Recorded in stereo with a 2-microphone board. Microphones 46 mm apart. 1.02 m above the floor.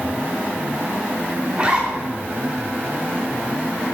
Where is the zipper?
25° right (ahead or behind), 4.5 m.